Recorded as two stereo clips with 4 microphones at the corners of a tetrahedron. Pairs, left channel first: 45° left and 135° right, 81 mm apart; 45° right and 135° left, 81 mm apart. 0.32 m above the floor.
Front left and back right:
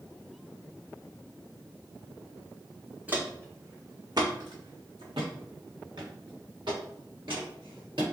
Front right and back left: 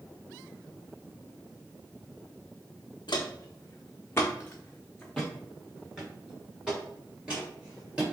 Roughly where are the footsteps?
Ahead right.